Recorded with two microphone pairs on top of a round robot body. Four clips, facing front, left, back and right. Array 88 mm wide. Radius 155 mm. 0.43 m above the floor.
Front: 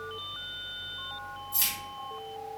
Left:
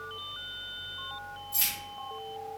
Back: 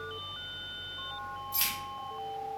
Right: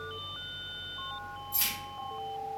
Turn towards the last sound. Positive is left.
turn(degrees=-175)